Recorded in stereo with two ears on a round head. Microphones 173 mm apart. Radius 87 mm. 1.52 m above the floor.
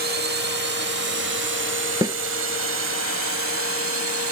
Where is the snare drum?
20° right (ahead or behind).